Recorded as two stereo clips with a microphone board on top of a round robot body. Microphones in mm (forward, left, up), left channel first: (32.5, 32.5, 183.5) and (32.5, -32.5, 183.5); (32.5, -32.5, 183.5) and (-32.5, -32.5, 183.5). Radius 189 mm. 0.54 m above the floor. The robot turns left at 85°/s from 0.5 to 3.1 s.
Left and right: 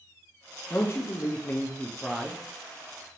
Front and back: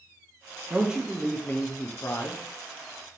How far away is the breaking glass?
No breaking glass in this recording.